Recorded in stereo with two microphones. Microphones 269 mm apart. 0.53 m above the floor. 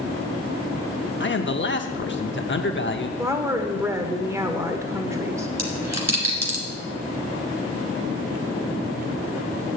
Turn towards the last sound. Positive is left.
turn(degrees=-85)